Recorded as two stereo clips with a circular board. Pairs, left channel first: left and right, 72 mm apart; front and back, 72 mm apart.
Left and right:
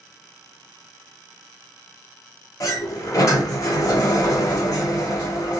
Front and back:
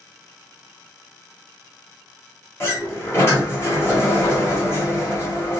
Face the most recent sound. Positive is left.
turn(degrees=50)